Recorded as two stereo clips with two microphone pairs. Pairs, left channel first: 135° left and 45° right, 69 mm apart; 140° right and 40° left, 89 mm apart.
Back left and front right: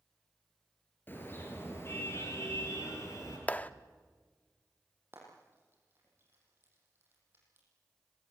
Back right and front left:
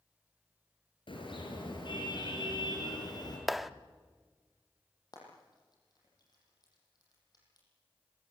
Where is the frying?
100° right, 8.5 m.